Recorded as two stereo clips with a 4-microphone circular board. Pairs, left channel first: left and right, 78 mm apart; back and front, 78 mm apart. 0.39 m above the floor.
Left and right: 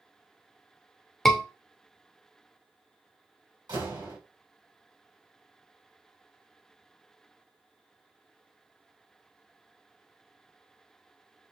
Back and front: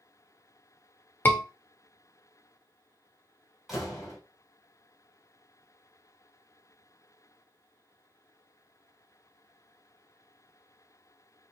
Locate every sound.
1.2 s a scream: 175° left, 0.8 m
3.7 s a door slam: 85° right, 2 m